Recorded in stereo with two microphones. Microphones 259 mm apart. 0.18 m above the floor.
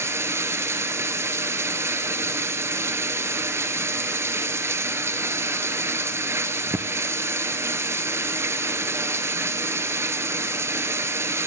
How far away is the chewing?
No chewing in this recording.